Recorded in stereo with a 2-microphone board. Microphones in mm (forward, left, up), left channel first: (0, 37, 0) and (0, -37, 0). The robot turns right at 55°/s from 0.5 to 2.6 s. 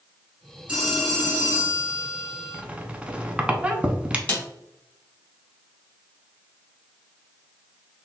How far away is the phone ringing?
About 1.8 m.